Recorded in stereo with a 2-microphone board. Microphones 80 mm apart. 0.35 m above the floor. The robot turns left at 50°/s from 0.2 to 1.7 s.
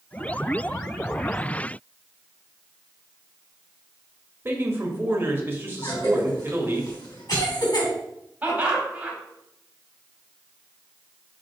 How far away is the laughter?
About 2.5 m.